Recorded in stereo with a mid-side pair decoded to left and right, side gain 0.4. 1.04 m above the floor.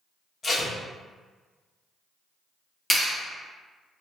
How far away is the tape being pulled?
About 1.4 m.